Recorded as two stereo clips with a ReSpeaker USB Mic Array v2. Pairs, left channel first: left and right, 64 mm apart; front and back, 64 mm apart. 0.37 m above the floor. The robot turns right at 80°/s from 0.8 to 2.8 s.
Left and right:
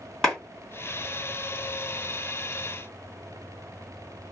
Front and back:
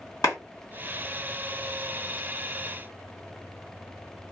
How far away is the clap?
About 2 m.